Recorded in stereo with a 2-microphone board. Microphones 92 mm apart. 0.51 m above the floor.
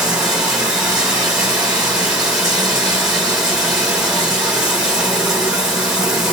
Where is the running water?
5° right (ahead or behind), 1.1 m.